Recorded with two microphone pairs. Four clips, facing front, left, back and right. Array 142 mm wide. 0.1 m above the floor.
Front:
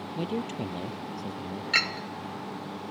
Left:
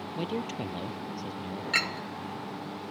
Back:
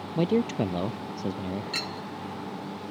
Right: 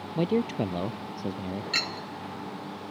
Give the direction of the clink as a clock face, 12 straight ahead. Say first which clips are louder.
Left 2 dB, front 3 dB; 11 o'clock.